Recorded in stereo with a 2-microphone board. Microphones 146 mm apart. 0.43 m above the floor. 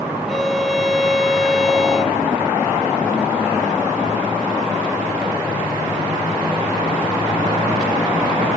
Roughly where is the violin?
Centre.